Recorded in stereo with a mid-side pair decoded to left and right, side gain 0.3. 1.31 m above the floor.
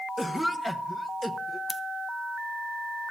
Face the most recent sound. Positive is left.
turn(degrees=15)